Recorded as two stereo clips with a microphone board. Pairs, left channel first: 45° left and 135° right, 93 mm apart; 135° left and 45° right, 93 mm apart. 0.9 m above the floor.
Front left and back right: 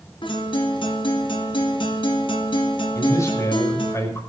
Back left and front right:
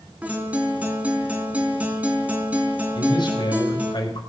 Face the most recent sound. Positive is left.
turn(degrees=100)